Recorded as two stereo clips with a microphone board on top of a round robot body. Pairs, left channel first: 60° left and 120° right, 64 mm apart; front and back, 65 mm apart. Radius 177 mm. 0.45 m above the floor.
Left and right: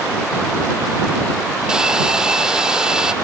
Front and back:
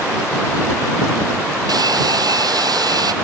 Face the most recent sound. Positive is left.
turn(degrees=160)